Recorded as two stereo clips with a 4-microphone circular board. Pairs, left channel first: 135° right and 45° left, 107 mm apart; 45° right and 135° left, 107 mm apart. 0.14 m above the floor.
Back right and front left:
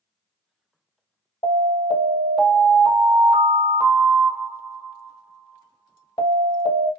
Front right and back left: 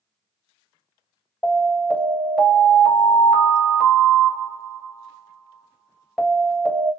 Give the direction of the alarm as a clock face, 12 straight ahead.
5 o'clock.